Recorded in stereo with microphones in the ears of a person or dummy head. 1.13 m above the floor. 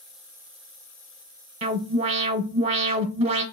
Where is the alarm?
30° right (ahead or behind), 1.1 m.